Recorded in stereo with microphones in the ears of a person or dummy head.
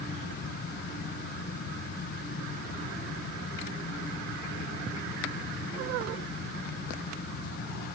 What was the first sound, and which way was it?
Only background noise.